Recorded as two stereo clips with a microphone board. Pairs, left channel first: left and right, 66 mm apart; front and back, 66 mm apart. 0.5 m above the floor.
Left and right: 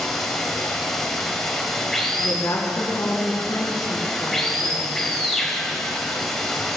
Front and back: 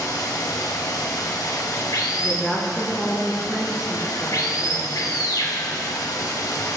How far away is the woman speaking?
About 4 m.